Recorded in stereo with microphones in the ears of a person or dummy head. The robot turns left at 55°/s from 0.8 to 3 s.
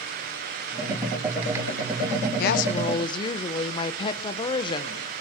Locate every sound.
2.4 s a woman speaking: 60° left, 0.7 m; by 5.0 s 30° left, 0.7 m